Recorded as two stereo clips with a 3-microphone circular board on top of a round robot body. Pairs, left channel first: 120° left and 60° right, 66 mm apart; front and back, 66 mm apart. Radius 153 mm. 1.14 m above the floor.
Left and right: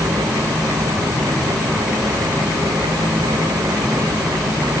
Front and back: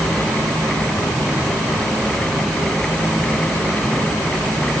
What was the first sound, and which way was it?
Only background noise.